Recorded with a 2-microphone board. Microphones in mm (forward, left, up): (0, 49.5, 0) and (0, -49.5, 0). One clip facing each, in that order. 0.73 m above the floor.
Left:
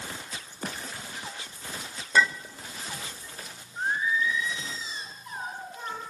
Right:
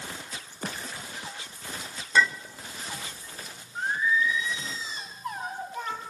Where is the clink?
5° left (ahead or behind), 1.2 m.